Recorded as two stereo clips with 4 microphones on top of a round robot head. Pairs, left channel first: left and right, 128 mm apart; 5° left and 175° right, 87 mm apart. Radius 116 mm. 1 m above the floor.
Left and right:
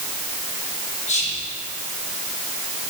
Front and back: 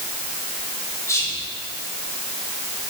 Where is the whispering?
60° left, 2.5 m.